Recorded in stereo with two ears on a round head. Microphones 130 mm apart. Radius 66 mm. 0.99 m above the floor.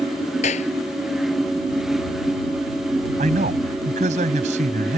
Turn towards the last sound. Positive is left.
turn(degrees=-55)  # may be behind; listen again after turning